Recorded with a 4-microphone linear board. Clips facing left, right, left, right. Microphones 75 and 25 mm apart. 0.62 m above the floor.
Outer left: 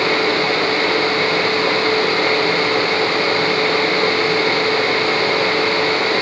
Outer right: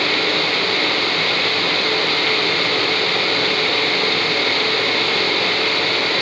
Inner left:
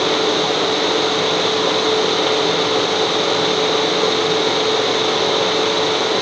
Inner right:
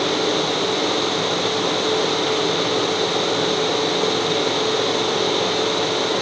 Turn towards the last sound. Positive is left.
No sound to turn to.